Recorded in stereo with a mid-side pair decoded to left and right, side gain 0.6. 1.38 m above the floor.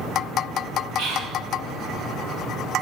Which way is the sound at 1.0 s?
70° right.